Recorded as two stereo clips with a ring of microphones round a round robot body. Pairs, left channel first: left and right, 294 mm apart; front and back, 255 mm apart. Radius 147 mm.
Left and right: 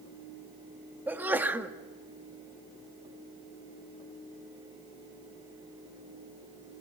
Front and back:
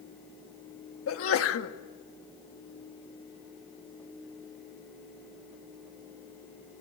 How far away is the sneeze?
About 1.3 m.